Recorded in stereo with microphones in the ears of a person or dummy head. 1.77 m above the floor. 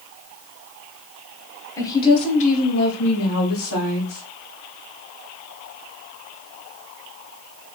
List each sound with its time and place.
1.8 s a woman speaking: 25° left (ahead or behind), 1.1 m; by 4.2 s 70° left (ahead or behind), 1.6 m